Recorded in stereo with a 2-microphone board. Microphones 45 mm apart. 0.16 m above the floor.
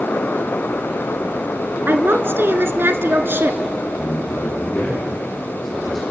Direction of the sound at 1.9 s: 55° right (ahead or behind).